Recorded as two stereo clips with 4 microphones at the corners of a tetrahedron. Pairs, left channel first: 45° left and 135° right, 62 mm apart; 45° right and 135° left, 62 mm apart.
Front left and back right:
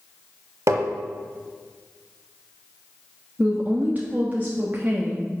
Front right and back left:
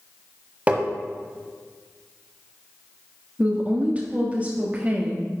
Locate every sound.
0.7 s tapping: 160° right, 1.3 m
3.4 s a woman speaking: 175° right, 1.4 m